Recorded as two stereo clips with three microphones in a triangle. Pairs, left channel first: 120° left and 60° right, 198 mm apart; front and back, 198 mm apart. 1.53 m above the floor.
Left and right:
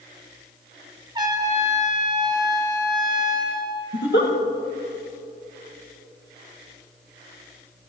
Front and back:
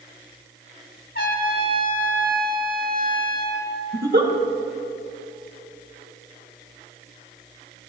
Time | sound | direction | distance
1.1 | a trumpet | straight ahead | 2.5 m
3.9 | a giggle | 145° left | 1.6 m